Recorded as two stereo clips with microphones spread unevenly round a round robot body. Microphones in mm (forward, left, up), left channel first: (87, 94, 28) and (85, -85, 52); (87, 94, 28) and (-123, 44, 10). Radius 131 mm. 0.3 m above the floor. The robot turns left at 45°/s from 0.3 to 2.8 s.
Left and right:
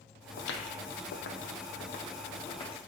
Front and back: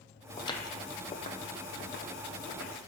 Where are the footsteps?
80° left, 0.8 m; by 2.8 s 25° left, 2.5 m.